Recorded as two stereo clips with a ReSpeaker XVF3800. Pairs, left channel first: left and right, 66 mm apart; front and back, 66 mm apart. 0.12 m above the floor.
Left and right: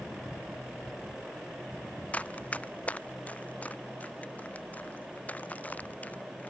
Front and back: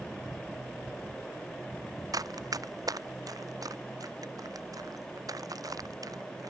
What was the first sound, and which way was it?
Running footsteps, 160° left.